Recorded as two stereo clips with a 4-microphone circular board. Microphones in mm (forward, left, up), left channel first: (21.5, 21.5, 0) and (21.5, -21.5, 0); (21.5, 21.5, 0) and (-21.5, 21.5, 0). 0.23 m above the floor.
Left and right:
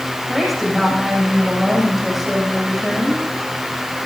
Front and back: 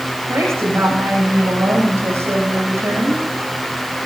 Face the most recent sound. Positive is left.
turn(degrees=-175)